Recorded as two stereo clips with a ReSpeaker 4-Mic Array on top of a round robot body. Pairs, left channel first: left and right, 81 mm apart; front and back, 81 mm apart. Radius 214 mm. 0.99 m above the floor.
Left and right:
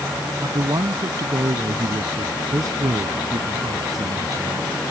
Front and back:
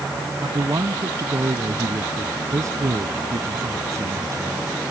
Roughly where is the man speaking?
Behind right.